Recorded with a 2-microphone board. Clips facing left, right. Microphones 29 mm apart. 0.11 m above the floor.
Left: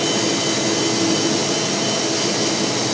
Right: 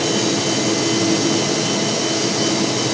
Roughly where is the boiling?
I don't hear boiling.